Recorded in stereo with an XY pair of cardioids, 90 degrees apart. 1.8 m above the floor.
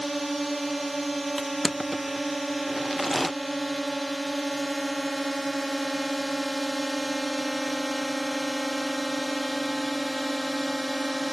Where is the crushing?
5° left.